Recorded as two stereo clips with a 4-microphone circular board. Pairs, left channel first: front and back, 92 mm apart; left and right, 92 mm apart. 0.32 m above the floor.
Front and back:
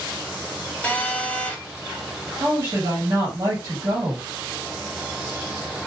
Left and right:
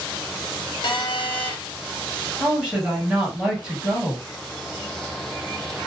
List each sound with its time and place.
0.8 s a phone buzzing: 70° left, 1.0 m
2.4 s a woman speaking: 165° right, 1.6 m